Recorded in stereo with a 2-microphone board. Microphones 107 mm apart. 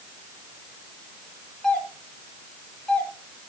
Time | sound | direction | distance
1.6 | a doorbell | 5° left (ahead or behind) | 2 m